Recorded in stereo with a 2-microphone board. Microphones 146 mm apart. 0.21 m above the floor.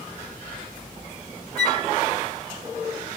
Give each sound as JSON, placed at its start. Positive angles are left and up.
{"t": 1.6, "sound": "a flute", "side_deg": 5, "distance_m": 1.0}